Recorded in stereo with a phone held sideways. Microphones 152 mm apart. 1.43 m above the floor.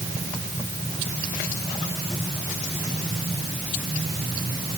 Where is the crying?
I don't hear crying.